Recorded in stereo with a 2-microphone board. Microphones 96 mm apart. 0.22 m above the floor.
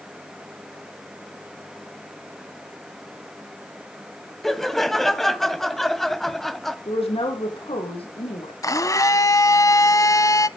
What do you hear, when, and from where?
4.4 s laughter: 5° left (ahead or behind), 1.2 m
6.8 s a woman speaking: 80° left, 7.5 m
8.6 s a blender: 35° left (ahead or behind), 0.7 m